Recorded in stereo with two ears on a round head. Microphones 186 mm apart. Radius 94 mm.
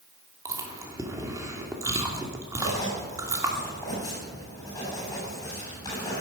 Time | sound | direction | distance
0.5 | chewing | 15° right (ahead or behind) | 2.5 m
2.6 | writing | 15° left (ahead or behind) | 9 m